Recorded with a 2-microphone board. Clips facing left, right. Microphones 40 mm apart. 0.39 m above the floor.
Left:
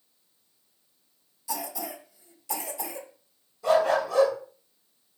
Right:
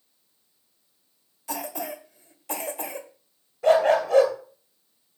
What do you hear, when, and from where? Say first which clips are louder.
1.5 s a cough: right 2 dB; 45° right (ahead or behind), 1.3 m
3.6 s a dog barking: right 4 dB; 50° right (ahead or behind), 2.5 m